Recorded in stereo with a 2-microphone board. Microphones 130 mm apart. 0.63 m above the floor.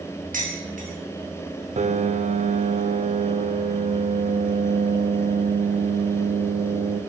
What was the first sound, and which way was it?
Dishes clattering, 70° right (ahead or behind).